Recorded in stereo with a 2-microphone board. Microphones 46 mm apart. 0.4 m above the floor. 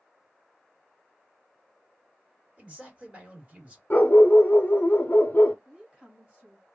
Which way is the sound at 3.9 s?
45° left (ahead or behind).